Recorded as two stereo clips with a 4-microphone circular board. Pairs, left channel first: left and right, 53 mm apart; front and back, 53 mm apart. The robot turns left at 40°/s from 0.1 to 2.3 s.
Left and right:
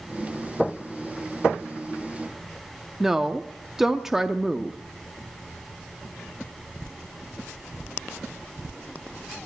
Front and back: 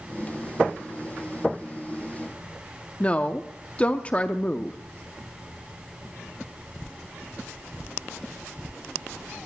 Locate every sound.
3.0 s a woman speaking: 15° right, 0.6 m